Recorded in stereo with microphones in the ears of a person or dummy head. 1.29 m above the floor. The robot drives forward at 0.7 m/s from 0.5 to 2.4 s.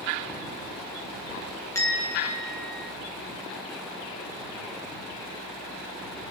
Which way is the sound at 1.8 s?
15° left (ahead or behind).